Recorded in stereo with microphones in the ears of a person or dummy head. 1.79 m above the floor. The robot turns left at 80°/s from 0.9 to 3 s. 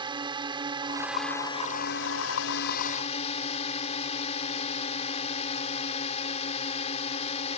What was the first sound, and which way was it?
A drone, 165° right.